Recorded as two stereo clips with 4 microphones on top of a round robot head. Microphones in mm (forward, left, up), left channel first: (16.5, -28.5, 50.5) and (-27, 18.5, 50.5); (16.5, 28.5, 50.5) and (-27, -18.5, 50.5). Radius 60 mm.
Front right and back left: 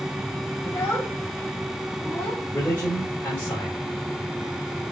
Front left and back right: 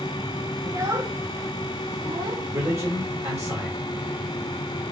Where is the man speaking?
100° right, 2 m.